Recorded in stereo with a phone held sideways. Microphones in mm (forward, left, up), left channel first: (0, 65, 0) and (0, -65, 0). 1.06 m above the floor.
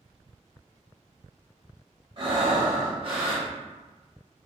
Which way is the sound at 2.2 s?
40° right (ahead or behind).